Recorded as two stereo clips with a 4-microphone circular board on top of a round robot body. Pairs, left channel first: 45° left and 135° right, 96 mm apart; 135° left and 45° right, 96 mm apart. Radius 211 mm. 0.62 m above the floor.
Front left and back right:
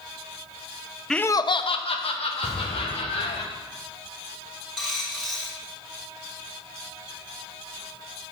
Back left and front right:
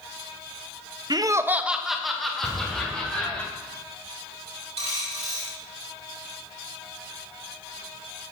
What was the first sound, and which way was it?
Laughter, 40° right.